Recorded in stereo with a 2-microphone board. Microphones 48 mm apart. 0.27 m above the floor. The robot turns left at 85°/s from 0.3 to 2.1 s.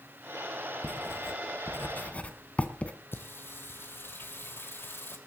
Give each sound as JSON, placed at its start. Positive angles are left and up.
{"t": 0.8, "sound": "writing", "side_deg": 35, "distance_m": 1.4}
{"t": 3.1, "sound": "singing", "side_deg": 50, "distance_m": 1.8}